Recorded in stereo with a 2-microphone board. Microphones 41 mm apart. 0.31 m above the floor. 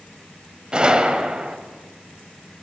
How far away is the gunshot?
About 0.8 m.